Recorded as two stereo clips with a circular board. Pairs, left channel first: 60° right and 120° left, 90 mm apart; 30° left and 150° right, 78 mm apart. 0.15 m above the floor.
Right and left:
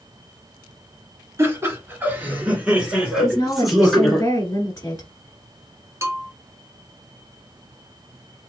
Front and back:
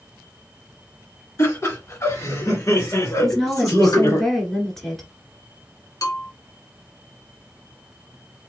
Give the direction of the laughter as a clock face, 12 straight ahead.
10 o'clock.